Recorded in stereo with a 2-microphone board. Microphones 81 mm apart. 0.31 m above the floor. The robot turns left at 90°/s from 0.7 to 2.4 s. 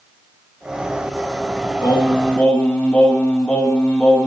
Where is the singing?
70° left, 1.0 m; by 4.3 s 20° left, 1.0 m.